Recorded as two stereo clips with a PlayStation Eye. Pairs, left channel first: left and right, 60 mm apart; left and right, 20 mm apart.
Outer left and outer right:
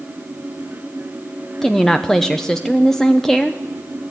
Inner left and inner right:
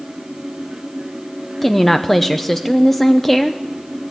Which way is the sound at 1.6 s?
10° left (ahead or behind).